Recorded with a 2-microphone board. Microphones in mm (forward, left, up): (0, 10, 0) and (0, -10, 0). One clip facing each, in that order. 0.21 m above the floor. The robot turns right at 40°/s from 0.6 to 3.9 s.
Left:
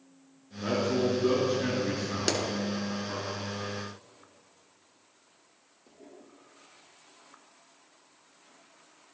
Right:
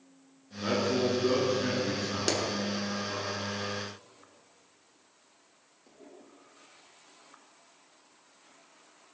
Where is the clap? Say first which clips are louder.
Left 1 dB; 10° left (ahead or behind), 1.7 m; by 2.4 s 5° left (ahead or behind), 1.7 m.